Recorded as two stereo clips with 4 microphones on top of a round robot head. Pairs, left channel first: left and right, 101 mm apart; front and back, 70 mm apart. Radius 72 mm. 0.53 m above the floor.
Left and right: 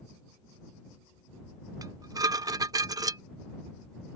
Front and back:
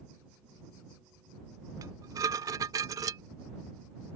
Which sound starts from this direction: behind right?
Dishes clattering, at 1.8 s.